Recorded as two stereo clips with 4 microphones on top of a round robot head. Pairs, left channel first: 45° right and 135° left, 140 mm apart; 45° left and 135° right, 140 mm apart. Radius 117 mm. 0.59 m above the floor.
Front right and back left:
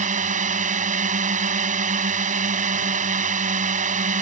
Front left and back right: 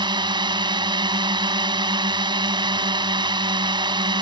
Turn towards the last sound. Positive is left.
turn(degrees=165)